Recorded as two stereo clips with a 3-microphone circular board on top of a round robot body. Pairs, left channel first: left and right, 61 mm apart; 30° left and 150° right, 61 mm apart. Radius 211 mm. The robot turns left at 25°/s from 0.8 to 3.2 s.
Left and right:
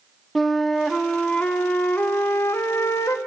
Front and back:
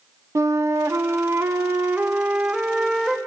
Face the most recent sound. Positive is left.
turn(degrees=120)